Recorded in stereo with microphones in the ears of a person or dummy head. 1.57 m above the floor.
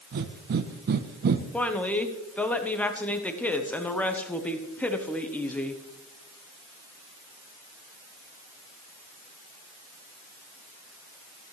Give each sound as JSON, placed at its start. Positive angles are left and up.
{"t": 0.1, "sound": "breathing", "side_deg": -50, "distance_m": 0.9}
{"t": 1.5, "sound": "a woman speaking", "side_deg": 5, "distance_m": 1.0}